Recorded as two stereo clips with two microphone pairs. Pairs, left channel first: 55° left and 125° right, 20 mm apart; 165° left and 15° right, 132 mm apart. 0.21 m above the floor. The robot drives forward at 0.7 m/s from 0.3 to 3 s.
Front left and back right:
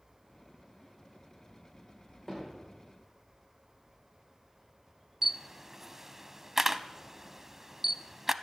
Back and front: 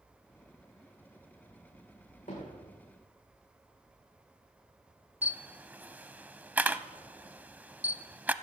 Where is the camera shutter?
75° right, 0.5 m.